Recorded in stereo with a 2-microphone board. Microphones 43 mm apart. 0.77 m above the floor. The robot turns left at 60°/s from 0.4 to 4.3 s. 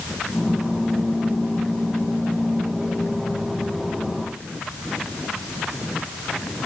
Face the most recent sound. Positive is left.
No sound to turn to.